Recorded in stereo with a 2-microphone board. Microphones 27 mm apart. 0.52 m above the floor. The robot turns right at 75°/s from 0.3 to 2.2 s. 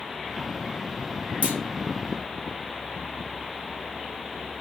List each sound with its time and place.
1.4 s a clunk: 70° right (ahead or behind), 0.7 m; by 1.6 s 75° right (ahead or behind), 0.7 m